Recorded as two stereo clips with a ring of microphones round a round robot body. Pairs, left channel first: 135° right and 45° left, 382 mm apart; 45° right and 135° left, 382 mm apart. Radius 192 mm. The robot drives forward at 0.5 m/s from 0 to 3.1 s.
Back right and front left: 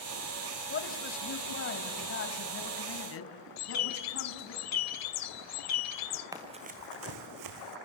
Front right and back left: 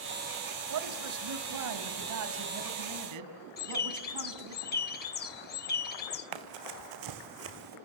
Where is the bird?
105° right, 2.5 m.